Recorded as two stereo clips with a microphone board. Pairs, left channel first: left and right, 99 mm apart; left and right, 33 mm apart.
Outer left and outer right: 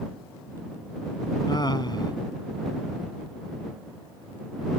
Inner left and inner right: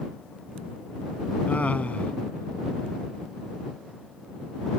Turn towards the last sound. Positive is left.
turn(degrees=50)  # may be behind; listen again after turning